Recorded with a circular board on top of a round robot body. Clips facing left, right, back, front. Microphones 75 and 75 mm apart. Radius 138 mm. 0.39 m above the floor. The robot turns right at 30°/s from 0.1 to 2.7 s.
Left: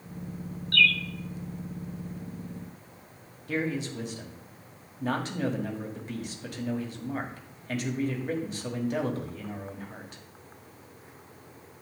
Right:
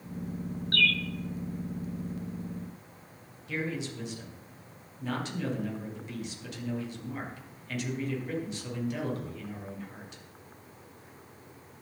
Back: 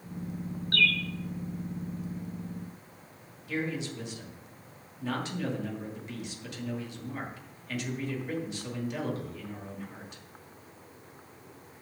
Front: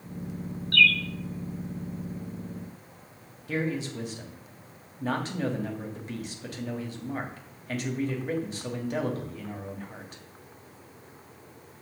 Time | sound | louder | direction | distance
0.7 | a bird | left 3 dB, front 5 dB | 135° right | 0.7 m
3.5 | a man speaking | left 4 dB, front 3 dB | 45° left | 2.5 m